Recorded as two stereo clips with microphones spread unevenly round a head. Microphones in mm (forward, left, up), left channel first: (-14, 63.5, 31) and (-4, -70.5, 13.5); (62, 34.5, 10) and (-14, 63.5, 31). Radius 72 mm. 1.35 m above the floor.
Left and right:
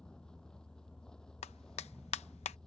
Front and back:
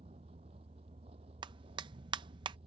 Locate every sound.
0.0 s a vehicle: straight behind
1.4 s a clap: 140° left